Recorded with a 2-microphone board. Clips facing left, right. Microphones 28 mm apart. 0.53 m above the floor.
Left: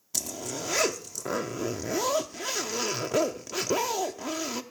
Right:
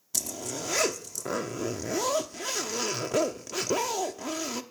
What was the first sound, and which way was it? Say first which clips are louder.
A zipper: even; 10° left (ahead or behind).